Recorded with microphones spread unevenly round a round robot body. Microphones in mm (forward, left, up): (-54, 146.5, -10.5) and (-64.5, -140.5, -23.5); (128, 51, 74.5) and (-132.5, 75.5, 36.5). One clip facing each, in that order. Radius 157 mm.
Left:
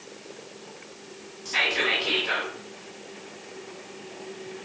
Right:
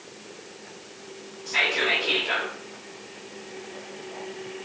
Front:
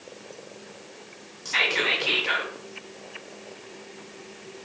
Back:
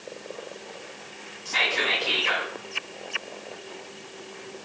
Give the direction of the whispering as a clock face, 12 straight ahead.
11 o'clock.